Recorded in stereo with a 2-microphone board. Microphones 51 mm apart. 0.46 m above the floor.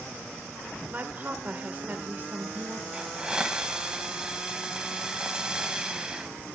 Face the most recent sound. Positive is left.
turn(degrees=-15)  # may be behind; listen again after turning